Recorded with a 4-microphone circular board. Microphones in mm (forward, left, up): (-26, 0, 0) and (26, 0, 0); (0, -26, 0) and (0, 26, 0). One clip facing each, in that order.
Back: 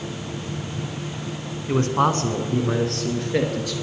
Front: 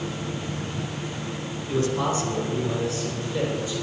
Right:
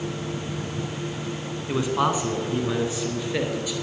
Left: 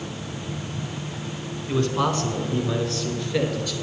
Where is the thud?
I don't hear a thud.